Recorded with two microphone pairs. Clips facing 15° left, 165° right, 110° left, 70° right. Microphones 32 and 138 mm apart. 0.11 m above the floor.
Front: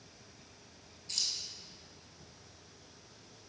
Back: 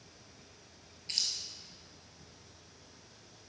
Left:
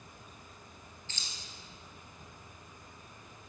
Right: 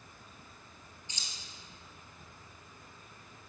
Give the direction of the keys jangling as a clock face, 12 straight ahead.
5 o'clock.